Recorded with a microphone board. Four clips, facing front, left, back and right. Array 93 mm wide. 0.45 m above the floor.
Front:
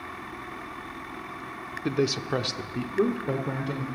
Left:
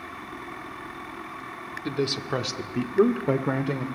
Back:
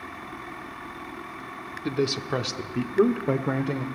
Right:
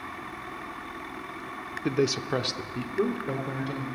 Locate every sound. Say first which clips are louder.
1.9 s a man speaking: right 2 dB, even; 65° right, 0.8 m; by 3.9 s 120° left, 1.1 m